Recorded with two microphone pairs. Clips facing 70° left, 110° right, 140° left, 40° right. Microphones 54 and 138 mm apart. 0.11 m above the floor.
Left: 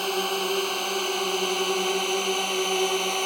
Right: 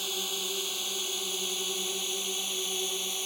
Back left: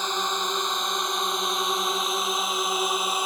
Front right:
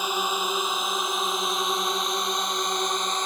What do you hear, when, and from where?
0.0 s a drone: 40° left; by 3.3 s 55° left